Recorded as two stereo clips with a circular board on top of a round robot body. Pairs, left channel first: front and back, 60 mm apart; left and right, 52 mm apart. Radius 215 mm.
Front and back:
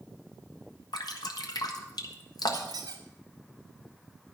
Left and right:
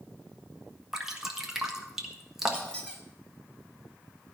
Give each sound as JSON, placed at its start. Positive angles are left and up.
{"t": 0.9, "sound": "dripping", "azimuth_deg": -10, "distance_m": 1.8}
{"t": 2.5, "sound": "a squeak", "azimuth_deg": 160, "distance_m": 1.5}